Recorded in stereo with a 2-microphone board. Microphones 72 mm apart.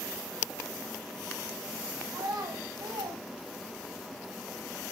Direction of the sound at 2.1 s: 60° right (ahead or behind).